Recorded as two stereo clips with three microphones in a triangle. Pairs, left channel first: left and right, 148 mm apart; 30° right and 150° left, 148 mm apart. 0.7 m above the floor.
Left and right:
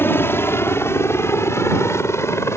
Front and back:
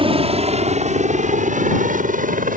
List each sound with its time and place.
0.0 s a helicopter: 155° left; by 2.6 s 160° left